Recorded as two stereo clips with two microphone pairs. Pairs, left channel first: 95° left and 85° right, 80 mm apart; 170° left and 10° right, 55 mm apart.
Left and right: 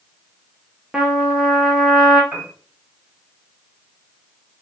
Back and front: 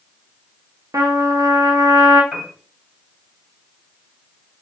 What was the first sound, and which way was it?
A trumpet, 10° right.